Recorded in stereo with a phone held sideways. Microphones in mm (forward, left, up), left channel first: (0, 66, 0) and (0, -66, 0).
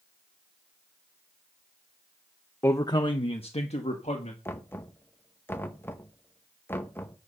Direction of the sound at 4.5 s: 15° left (ahead or behind).